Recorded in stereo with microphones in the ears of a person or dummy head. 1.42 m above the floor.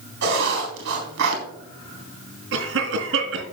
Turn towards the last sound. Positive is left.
turn(degrees=-65)  # may be behind; listen again after turning